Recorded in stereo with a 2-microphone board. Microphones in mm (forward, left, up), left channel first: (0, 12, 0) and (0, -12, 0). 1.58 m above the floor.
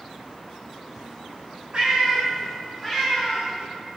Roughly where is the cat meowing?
Right.